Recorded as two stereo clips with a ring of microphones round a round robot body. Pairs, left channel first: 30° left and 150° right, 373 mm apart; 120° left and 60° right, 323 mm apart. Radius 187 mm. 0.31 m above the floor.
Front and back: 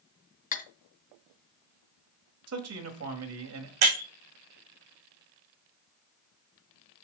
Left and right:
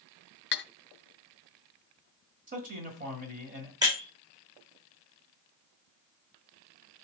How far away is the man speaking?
About 1.4 m.